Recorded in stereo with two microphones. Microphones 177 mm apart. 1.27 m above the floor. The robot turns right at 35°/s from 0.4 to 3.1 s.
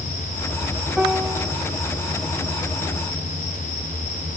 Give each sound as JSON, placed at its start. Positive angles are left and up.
{"t": 1.0, "sound": "a piano", "side_deg": -5, "distance_m": 0.6}